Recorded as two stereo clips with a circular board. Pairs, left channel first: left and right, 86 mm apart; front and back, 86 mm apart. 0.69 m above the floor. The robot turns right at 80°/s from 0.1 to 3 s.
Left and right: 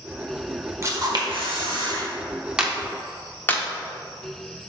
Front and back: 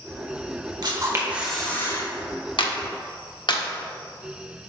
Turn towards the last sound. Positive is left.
turn(degrees=25)